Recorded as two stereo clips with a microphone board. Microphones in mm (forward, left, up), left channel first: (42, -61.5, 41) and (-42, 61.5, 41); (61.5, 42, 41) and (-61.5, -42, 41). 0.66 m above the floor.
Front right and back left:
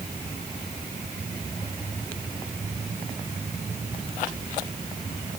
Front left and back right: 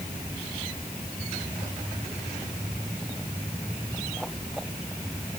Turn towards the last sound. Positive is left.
No sound to turn to.